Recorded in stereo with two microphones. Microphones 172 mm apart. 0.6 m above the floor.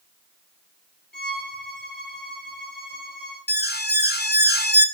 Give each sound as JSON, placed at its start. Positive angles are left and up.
{"t": 1.1, "sound": "a violin", "side_deg": 70, "distance_m": 5.0}
{"t": 3.5, "sound": "an alarm", "side_deg": 70, "distance_m": 1.1}